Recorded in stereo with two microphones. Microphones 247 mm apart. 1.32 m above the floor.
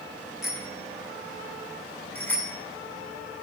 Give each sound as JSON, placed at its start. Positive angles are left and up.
{"t": 0.4, "sound": "a bicycle bell", "side_deg": 0, "distance_m": 10.0}